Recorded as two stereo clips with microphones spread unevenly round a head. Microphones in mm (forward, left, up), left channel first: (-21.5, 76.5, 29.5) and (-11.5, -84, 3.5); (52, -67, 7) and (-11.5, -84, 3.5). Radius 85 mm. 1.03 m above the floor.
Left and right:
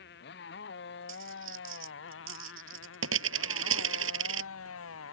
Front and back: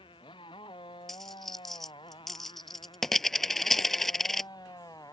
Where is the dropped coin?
70° right.